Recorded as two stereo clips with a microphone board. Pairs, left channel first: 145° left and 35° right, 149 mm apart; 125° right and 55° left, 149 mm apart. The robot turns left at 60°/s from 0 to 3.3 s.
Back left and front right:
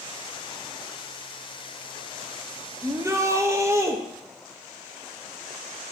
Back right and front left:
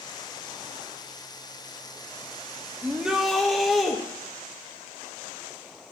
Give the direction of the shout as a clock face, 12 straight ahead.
12 o'clock.